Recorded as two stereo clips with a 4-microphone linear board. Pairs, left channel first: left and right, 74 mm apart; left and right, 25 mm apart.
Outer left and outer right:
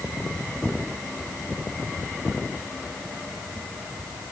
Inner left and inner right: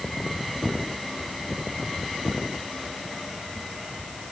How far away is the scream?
No scream in this recording.